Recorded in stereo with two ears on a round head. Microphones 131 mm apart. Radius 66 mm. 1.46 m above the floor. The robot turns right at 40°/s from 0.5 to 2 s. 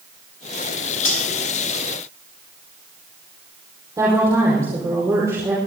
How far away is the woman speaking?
About 5.5 m.